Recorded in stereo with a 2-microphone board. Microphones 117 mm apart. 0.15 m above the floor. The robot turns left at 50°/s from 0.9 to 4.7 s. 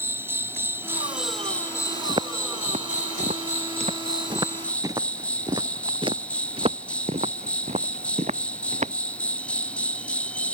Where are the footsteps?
40° right (ahead or behind); by 8.9 s 90° right.